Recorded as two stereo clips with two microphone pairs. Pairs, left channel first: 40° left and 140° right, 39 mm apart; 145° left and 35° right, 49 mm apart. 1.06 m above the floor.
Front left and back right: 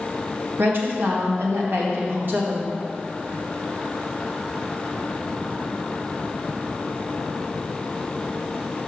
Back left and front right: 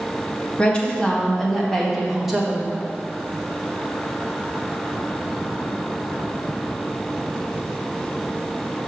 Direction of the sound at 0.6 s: 150° right.